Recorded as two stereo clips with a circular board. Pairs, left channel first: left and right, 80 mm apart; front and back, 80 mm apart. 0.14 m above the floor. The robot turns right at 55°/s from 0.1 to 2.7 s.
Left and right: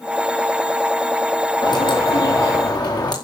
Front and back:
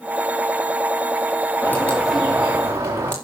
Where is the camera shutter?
No camera shutter in this recording.